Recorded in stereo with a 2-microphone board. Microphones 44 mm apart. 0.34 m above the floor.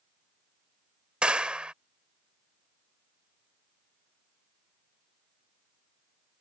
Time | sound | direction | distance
1.2 | a clap | 25° right (ahead or behind) | ?